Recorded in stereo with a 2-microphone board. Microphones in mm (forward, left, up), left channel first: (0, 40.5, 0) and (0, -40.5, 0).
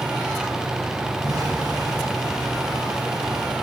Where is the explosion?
50° right (ahead or behind), 6 m.